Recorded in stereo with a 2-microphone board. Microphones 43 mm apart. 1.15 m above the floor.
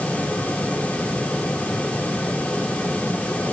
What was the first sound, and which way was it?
Only background noise.